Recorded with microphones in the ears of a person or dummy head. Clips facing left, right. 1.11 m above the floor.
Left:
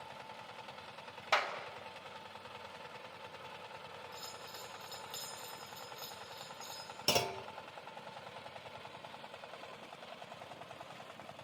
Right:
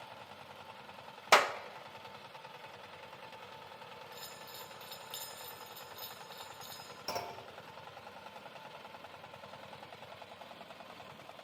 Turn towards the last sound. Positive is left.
turn(degrees=40)  # may be behind; listen again after turning